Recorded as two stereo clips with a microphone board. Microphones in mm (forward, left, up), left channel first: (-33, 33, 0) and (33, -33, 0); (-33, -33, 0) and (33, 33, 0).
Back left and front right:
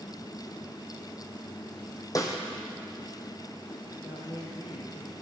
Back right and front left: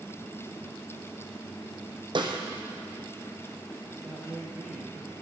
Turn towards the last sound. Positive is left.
turn(degrees=130)